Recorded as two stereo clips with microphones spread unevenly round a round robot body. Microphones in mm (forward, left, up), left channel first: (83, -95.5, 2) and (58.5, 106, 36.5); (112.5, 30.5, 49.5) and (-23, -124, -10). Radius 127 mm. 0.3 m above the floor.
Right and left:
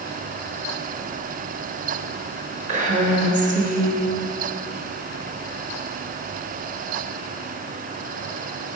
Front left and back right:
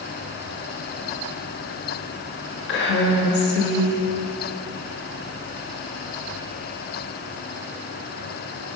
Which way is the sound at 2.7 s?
60° left.